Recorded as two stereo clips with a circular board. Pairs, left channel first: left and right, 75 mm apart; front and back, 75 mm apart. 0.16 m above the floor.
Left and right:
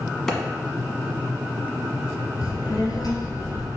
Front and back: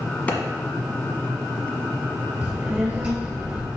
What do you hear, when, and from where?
0.3 s a clap: 15° left, 1.2 m
2.4 s a child speaking: 110° left, 2 m